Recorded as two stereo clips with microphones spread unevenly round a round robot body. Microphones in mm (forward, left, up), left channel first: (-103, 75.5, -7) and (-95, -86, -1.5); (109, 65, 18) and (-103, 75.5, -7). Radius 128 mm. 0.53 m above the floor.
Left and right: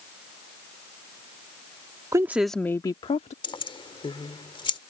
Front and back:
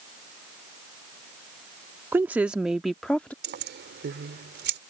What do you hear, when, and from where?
2.1 s a woman speaking: 135° right; by 3.3 s 85° left
3.4 s keys jangling: 150° left